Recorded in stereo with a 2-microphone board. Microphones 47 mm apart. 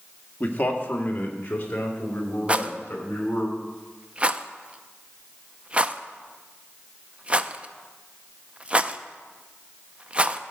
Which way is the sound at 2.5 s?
25° right (ahead or behind).